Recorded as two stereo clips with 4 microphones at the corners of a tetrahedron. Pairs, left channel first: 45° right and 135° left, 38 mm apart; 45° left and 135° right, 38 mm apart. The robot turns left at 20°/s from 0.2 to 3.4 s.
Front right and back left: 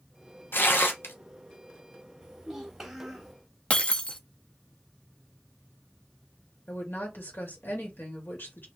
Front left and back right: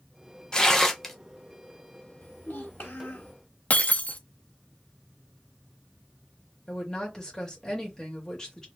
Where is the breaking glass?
5° left, 0.5 m.